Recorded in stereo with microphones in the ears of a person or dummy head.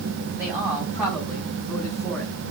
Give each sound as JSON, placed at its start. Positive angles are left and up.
{"t": 0.4, "sound": "a man speaking", "side_deg": -10, "distance_m": 4.5}